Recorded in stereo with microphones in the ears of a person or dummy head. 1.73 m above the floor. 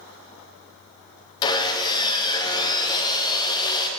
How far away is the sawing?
About 1.0 m.